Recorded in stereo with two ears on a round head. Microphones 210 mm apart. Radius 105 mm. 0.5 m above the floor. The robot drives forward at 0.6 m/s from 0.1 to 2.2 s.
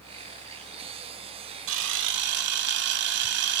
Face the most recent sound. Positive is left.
turn(degrees=-50)  # may be behind; listen again after turning